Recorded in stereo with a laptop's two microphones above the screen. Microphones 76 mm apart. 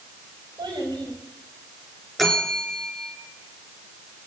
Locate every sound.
0.6 s a child speaking: 80° right, 5 m
2.2 s a bell: centre (ahead or behind), 2.5 m